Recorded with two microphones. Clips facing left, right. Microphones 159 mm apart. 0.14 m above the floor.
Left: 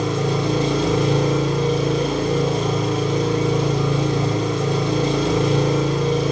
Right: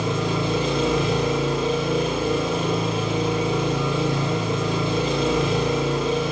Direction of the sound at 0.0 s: 40° left (ahead or behind).